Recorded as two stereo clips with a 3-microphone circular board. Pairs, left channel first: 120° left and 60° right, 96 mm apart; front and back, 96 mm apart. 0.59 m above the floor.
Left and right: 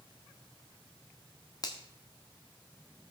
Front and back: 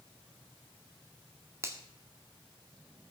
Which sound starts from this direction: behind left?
A finger snap, at 1.6 s.